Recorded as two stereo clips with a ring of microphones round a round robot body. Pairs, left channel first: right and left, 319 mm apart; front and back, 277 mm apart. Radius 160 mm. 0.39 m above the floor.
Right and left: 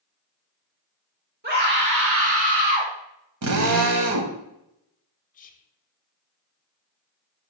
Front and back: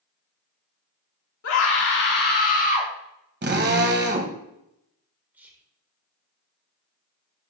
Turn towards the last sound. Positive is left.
turn(degrees=-105)